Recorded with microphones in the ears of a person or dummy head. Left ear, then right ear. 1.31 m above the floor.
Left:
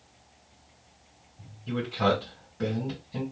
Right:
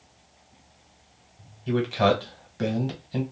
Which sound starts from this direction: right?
A man speaking, at 1.7 s.